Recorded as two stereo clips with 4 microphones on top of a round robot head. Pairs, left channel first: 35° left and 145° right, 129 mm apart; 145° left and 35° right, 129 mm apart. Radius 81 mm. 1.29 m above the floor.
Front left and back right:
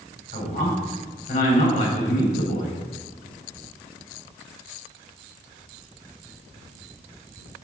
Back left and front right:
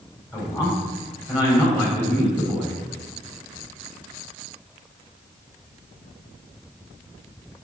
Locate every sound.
0.3 s a man speaking: 80° left, 3 m